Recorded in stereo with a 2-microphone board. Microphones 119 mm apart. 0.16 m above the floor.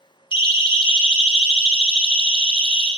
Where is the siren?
40° left (ahead or behind), 2.5 m; by 2.9 s 50° left (ahead or behind), 4 m.